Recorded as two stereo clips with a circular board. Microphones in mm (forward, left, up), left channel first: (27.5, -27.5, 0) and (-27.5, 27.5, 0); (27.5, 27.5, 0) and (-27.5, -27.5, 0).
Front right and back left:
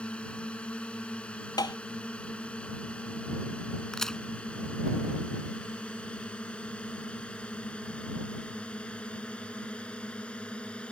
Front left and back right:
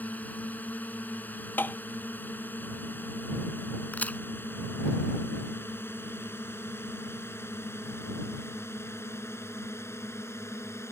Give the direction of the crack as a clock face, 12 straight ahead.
11 o'clock.